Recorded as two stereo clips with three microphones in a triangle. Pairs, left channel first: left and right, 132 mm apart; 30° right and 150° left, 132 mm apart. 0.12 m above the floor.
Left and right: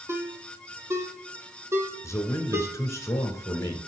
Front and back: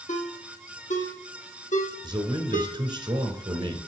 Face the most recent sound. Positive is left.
turn(degrees=140)